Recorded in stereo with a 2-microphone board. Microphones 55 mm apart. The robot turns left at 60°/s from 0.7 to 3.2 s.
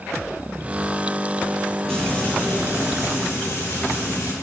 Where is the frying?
165° left, 4.5 m; by 4.3 s 85° left, 4.5 m.